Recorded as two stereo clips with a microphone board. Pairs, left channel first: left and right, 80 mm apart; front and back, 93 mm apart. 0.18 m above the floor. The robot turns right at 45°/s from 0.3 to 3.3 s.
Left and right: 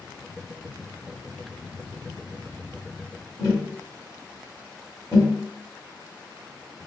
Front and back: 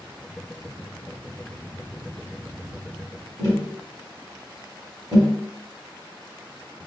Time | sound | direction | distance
3.4 | tapping | 130° right | 2.0 m